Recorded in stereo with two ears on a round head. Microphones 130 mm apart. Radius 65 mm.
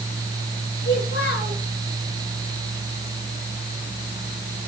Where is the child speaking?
75° left (ahead or behind), 9 m.